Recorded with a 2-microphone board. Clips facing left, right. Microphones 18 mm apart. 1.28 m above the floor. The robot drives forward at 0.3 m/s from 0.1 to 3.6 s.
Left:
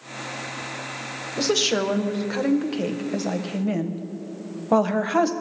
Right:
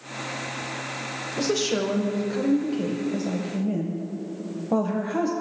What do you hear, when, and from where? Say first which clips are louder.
1.4 s a woman speaking: left 3 dB; 30° left (ahead or behind), 0.9 m; by 5.3 s 50° left (ahead or behind), 0.6 m